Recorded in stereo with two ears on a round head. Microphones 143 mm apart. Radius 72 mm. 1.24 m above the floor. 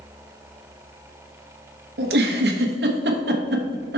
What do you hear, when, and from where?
2.0 s a giggle: 70° right (ahead or behind), 1.1 m